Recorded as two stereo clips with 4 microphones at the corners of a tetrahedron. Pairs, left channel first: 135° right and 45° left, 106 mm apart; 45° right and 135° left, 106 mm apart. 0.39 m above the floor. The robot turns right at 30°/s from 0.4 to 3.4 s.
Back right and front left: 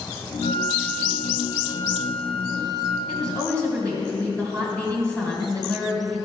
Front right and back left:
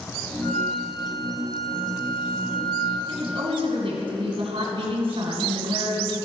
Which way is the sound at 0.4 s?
115° right.